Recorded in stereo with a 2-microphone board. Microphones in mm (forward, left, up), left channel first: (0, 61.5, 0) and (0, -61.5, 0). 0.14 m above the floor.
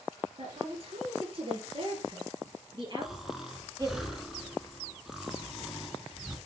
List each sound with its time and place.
0.4 s a woman speaking: 55° right (ahead or behind), 3 m; by 4.0 s 30° right (ahead or behind), 4 m
3.0 s snoring: centre (ahead or behind), 1.7 m